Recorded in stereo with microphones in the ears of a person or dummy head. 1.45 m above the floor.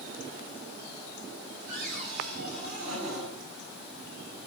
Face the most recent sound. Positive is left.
turn(degrees=-75)  # may be behind; listen again after turning